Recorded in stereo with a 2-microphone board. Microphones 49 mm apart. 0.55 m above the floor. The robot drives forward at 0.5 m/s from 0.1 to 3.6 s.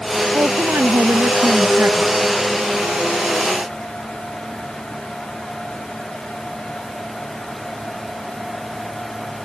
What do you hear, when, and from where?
0.3 s a woman speaking: 50° right (ahead or behind); by 2.1 s 45° right (ahead or behind)